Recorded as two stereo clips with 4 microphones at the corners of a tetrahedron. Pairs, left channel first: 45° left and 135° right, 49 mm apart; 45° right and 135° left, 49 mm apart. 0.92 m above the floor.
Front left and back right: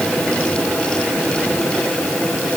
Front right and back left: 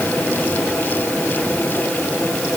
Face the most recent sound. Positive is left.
No sound to turn to.